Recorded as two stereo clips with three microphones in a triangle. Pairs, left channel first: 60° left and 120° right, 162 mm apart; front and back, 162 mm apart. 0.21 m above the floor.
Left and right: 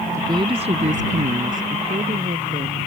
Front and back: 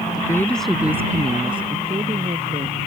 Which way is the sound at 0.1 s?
55° right.